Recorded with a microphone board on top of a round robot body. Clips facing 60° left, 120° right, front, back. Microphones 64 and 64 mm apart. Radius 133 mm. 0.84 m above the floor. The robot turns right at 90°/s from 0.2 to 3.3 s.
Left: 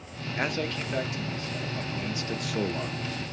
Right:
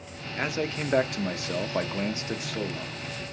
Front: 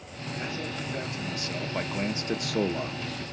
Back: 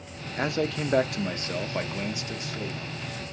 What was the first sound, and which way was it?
A man speaking, 140° left.